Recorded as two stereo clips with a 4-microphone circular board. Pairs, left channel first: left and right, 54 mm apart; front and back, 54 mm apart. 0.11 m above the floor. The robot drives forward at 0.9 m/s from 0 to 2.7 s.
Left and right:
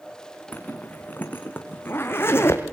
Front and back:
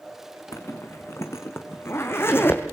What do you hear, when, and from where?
0.5 s a zipper: 25° left, 4 m; by 2.6 s 45° left, 2.5 m